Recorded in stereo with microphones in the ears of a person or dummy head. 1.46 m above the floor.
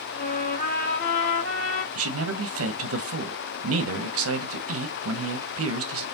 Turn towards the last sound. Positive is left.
turn(degrees=-65)  # may be behind; listen again after turning